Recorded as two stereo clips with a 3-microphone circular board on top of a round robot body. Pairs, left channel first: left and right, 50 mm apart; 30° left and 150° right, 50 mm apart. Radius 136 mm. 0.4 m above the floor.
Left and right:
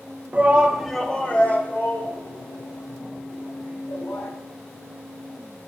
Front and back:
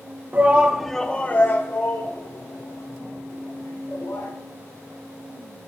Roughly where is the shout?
Behind right.